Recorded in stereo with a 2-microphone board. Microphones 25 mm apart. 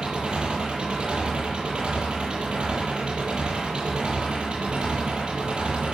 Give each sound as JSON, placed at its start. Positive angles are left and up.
{"t": 0.0, "sound": "an engine running", "side_deg": -40, "distance_m": 9.5}